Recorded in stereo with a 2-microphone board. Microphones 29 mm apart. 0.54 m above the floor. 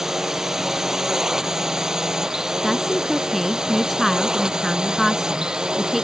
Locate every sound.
0.0 s a drone: 15° right (ahead or behind); by 6.0 s 25° right (ahead or behind)
2.6 s a woman speaking: centre (ahead or behind)